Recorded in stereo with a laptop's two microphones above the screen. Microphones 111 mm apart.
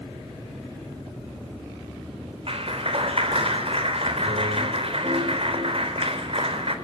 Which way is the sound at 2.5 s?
60° right (ahead or behind).